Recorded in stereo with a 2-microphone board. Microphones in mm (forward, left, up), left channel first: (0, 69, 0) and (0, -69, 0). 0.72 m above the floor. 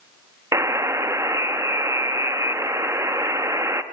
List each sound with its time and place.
0.5 s a buzzer: 20° right (ahead or behind), 0.7 m